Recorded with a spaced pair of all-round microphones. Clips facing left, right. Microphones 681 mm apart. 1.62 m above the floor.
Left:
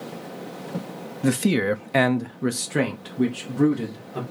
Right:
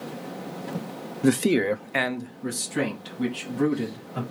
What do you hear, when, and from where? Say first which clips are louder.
1.2 s a man speaking: right 1 dB; 10° left (ahead or behind), 0.7 m; by 4.2 s 65° left (ahead or behind), 2.5 m